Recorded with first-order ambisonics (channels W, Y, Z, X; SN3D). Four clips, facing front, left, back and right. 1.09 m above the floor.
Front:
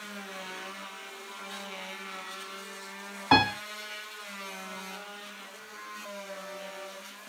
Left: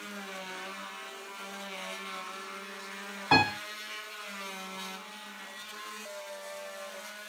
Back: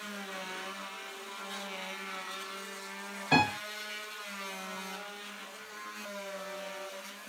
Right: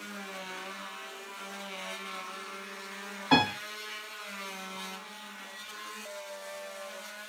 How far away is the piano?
About 1.4 m.